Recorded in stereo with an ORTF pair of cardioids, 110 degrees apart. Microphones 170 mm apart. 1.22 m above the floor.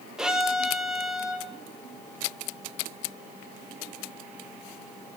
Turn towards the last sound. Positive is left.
turn(degrees=-5)